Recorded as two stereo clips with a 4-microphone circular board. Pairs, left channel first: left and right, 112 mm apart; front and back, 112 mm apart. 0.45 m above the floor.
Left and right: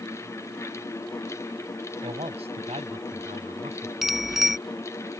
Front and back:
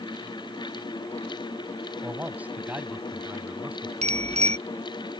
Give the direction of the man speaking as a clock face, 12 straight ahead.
3 o'clock.